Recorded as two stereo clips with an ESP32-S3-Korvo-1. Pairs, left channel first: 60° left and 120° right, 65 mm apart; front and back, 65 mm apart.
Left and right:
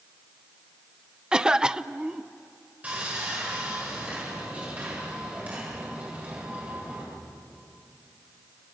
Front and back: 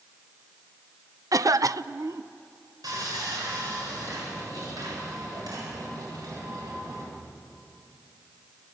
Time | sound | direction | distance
1.3 | a cough | 165° left | 0.6 m
2.8 | sawing | 175° left | 9 m